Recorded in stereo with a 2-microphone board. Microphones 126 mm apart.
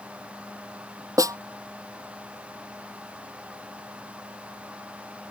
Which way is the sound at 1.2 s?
25° right (ahead or behind).